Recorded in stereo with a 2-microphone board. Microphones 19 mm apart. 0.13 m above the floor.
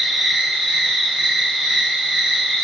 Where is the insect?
30° right (ahead or behind), 3 m.